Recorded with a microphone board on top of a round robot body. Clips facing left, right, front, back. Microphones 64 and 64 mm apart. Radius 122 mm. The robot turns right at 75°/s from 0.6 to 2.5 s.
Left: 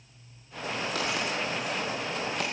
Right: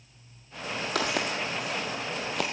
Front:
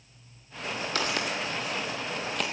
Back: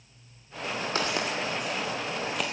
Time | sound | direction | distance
0.9 | footsteps | 120° right | 0.8 m